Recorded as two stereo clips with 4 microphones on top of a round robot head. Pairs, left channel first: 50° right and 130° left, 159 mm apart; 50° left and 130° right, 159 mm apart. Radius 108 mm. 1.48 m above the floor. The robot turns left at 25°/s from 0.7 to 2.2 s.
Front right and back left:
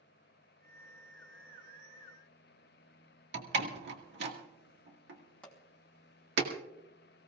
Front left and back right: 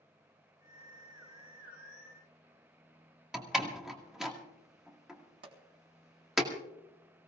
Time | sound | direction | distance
3.3 | a door slam | 140° left | 2.0 m
5.4 | a pop | 130° right | 2.5 m